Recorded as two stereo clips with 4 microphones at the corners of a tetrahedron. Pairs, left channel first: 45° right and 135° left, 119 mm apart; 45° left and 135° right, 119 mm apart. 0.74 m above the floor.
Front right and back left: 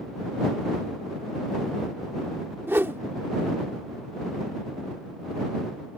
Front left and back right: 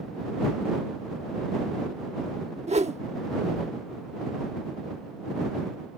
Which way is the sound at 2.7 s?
155° right.